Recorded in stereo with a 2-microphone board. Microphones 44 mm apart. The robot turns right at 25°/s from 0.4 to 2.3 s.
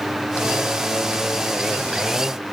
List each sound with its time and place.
Only background noise.